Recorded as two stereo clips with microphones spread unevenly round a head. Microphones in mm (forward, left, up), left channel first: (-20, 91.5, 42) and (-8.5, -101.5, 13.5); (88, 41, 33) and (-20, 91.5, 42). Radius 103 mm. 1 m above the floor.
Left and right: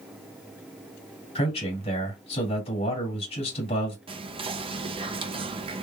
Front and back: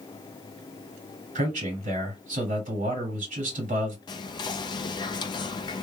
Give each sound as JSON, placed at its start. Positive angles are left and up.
{"t": 1.4, "sound": "a man speaking", "azimuth_deg": 155, "distance_m": 2.0}
{"t": 4.1, "sound": "whispering", "azimuth_deg": -50, "distance_m": 0.5}